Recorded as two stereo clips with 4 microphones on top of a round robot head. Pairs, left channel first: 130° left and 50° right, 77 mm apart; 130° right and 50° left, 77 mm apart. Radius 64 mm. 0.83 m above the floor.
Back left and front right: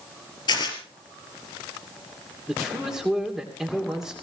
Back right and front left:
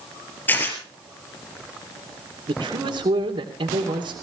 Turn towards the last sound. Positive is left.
turn(degrees=35)